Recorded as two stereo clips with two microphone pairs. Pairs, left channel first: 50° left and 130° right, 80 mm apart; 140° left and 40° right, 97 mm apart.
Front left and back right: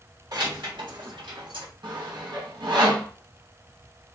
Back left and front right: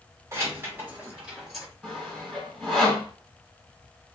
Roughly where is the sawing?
Behind right.